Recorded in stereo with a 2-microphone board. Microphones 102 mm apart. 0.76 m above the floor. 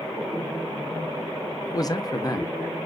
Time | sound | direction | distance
1.7 | a man speaking | 35° left (ahead or behind) | 0.6 m